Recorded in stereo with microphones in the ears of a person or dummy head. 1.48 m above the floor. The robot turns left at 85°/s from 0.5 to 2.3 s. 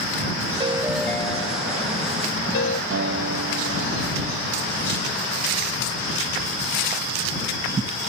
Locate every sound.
0.6 s a ringtone: 145° right; by 2.8 s 70° left
2.9 s a guitar: 70° right (ahead or behind)